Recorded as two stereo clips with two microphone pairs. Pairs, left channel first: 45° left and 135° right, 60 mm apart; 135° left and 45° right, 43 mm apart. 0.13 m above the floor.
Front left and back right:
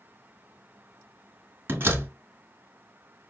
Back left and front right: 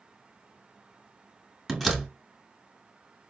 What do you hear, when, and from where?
1.7 s a door slam: 140° right, 1.1 m